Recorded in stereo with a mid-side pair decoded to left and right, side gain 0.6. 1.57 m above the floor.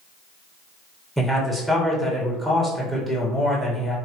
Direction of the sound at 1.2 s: Straight ahead.